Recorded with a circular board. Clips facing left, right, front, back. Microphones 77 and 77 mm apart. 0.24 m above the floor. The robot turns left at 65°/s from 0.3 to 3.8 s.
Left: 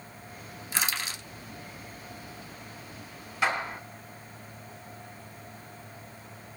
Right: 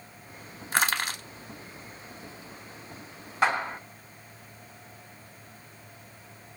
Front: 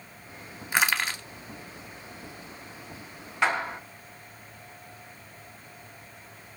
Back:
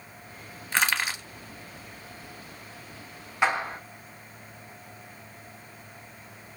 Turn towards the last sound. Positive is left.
turn(degrees=-130)